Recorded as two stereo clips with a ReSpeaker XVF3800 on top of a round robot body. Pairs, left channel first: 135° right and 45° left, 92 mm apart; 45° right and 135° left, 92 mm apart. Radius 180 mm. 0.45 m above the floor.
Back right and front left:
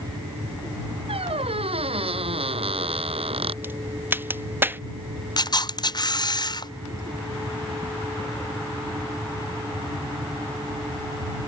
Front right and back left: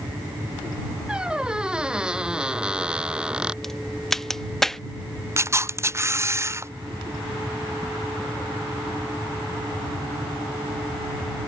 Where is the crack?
35° left.